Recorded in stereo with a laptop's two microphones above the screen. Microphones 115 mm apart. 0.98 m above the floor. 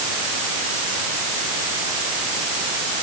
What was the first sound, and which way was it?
Only background noise.